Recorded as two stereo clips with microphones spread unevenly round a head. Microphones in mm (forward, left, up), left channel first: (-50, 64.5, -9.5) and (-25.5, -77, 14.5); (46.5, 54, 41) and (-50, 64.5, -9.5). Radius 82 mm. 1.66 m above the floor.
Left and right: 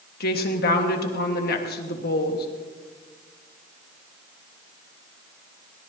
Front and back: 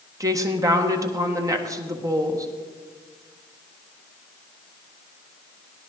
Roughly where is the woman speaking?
Behind left.